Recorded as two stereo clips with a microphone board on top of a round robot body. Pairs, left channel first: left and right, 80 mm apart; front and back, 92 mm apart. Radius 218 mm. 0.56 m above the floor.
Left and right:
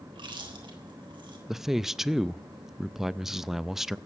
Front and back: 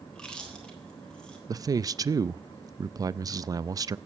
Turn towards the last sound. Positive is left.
turn(degrees=-175)